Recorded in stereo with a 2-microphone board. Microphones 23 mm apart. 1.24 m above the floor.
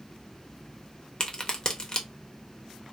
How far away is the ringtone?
No ringtone in this recording.